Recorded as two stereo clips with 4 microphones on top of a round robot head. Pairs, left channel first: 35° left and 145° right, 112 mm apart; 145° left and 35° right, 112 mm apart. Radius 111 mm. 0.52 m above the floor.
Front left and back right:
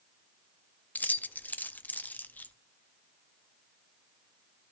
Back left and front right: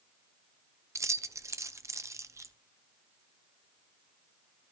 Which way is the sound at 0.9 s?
20° right.